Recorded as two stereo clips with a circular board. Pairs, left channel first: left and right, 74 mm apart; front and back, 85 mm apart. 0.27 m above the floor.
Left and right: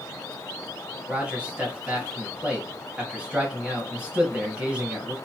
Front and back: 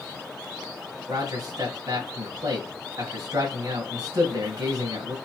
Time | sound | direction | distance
1.1 | a man speaking | 160° right | 1.4 m